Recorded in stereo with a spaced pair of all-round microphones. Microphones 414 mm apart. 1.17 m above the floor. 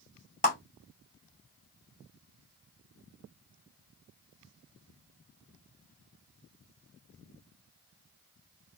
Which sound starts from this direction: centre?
A clap, at 0.4 s.